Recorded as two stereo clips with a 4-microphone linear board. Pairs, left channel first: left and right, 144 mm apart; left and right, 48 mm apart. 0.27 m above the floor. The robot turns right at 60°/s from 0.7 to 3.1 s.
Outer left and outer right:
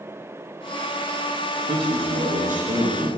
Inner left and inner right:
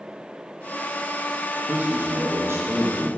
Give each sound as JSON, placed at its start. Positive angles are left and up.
{"t": 1.7, "sound": "a man speaking", "azimuth_deg": -145, "distance_m": 3.0}